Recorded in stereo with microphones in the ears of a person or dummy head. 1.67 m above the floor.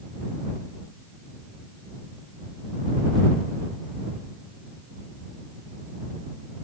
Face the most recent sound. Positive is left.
No sound to turn to.